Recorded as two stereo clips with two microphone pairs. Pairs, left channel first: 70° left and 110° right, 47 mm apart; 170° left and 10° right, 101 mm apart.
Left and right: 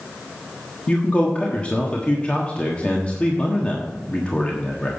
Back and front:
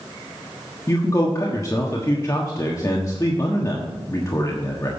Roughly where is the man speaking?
Behind left.